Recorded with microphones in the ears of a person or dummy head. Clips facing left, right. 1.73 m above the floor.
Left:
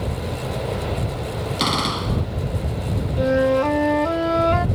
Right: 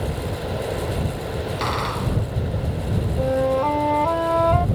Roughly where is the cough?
No cough in this recording.